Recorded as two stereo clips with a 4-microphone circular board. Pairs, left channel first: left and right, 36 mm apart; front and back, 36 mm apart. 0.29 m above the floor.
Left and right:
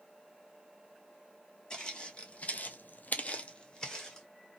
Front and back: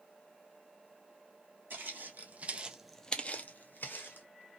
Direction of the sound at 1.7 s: 155° left.